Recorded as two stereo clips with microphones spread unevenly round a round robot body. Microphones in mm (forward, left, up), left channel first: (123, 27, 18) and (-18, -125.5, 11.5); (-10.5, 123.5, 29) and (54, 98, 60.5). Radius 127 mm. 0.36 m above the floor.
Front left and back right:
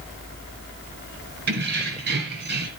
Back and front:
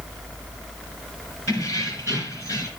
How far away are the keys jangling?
About 3.5 m.